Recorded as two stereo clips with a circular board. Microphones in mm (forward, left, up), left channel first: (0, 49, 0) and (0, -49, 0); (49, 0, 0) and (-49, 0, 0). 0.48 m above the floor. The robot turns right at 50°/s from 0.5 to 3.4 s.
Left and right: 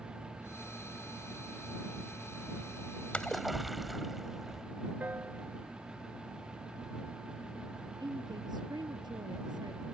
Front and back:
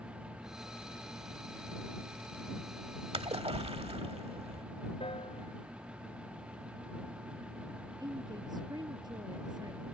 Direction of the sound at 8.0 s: 135° right.